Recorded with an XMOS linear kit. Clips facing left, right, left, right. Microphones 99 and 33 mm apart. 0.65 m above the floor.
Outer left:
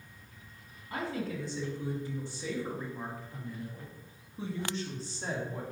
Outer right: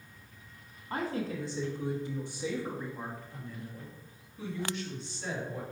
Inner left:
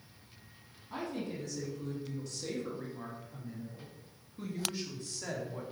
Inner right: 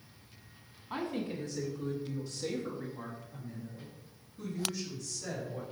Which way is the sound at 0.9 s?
35° right (ahead or behind).